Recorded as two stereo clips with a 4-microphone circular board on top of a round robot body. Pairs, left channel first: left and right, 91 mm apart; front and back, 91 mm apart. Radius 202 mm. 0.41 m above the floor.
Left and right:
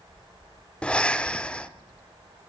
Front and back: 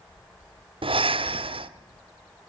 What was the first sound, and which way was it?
Breathing, 170° left.